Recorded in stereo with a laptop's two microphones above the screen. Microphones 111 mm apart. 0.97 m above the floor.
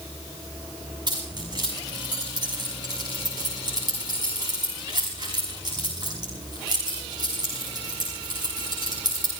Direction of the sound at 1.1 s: 40° right (ahead or behind).